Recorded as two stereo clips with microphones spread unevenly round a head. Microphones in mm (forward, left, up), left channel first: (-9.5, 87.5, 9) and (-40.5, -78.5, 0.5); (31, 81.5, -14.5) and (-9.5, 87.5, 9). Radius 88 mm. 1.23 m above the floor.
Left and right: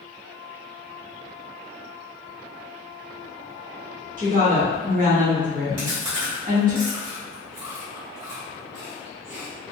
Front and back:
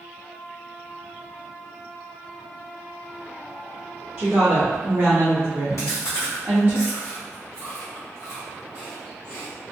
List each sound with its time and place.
4.2 s a woman speaking: 145° right, 1.2 m
5.8 s chewing: 45° right, 1.3 m